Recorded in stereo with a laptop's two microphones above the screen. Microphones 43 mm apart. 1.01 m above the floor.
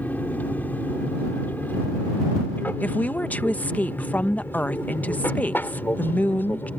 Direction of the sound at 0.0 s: 40° left (ahead or behind).